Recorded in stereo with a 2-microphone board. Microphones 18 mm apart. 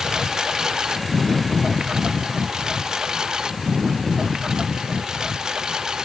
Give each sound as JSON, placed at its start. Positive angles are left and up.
{"t": 0.0, "sound": "a lawn mower", "side_deg": -40}